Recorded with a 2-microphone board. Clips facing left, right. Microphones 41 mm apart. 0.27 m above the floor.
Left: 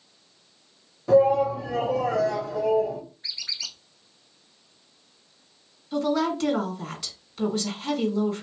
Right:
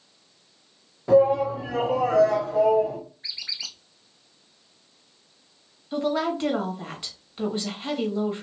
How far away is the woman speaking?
About 1.1 m.